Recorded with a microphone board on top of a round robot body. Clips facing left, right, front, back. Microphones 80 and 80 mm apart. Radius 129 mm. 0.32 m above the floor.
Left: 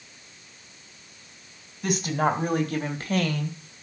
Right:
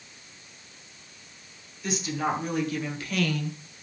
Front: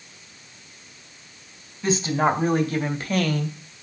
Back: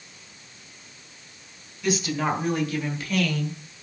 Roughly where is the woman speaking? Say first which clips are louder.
Left 4 dB, front 4 dB; ahead left.